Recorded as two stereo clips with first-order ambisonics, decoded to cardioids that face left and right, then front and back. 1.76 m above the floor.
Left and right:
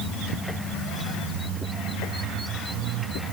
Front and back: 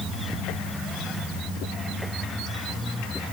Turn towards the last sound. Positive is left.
No sound to turn to.